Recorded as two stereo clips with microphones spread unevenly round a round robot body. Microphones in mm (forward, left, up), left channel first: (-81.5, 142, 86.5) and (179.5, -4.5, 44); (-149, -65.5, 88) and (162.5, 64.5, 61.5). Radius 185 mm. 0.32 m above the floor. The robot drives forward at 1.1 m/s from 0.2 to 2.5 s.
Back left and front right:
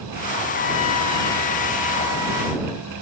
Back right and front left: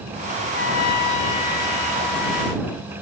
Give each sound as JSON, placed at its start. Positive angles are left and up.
{"t": 0.5, "sound": "a trumpet", "azimuth_deg": 175}